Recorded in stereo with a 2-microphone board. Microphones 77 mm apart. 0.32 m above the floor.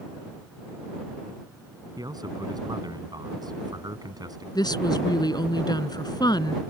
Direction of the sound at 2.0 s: 60° right (ahead or behind).